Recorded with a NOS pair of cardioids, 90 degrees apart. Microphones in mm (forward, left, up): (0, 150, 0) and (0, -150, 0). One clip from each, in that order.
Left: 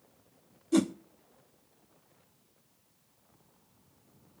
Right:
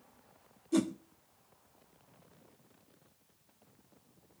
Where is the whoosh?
20° left, 1.1 m.